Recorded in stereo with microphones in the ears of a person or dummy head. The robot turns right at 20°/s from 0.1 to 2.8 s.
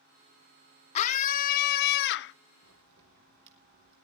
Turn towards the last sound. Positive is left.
turn(degrees=-60)  # may be behind; listen again after turning